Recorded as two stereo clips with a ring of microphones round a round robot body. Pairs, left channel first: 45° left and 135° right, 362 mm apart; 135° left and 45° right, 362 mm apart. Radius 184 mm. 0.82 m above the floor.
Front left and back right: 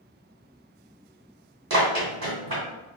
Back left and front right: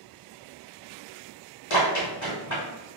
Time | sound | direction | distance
1.7 | running footsteps | 175° left | 1.9 m